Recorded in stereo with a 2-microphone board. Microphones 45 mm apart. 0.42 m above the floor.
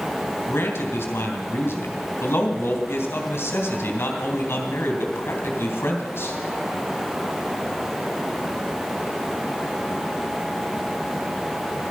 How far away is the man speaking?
About 2.5 m.